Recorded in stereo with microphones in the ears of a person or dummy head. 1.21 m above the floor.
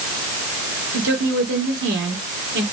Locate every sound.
0.9 s a woman speaking: 75° right (ahead or behind), 3.5 m